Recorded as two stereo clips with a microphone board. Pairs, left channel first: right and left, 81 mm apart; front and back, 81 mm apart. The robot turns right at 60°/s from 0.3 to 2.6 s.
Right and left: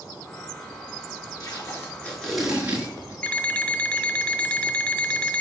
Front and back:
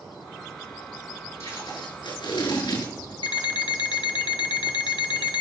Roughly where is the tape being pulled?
Ahead right.